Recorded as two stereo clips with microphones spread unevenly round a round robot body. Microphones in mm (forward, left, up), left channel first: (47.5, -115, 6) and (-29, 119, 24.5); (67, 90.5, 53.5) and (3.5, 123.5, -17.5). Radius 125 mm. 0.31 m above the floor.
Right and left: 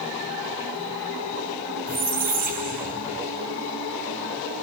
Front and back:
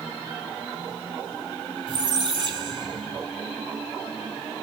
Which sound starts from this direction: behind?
A squeak, at 1.9 s.